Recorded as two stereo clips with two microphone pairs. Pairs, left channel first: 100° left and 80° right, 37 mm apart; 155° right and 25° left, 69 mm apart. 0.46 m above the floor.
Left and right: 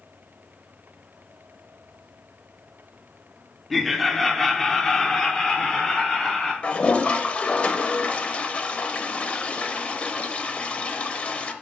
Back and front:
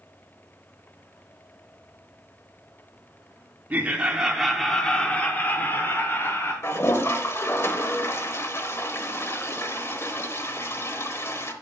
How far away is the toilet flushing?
About 0.7 m.